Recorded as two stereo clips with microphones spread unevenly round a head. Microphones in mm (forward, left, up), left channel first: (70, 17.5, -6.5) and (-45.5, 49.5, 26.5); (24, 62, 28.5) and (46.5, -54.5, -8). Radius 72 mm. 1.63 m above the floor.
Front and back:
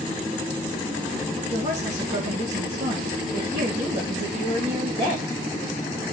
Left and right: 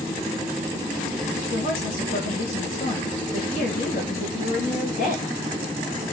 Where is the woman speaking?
130° left, 3 m.